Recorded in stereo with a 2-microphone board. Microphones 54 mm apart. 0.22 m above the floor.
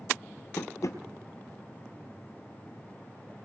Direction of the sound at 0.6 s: 65° left (ahead or behind).